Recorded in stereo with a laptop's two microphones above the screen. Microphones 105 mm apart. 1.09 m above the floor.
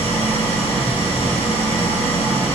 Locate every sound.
0.0 s an engine running: 85° left, 5 m